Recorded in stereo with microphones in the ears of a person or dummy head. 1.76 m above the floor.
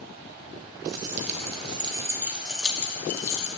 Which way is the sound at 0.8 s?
60° right (ahead or behind).